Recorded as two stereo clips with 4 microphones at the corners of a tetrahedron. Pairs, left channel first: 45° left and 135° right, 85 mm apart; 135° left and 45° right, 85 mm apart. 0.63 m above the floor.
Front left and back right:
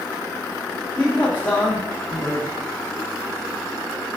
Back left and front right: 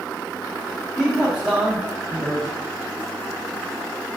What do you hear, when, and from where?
1.0 s a man speaking: 25° left, 0.9 m